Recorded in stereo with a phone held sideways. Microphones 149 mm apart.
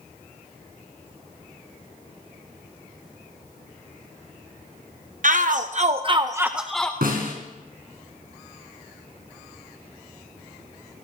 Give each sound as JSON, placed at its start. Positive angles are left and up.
{"t": 5.2, "sound": "a shout", "side_deg": -60, "distance_m": 0.8}
{"t": 7.0, "sound": "a snare drum", "side_deg": -80, "distance_m": 3.5}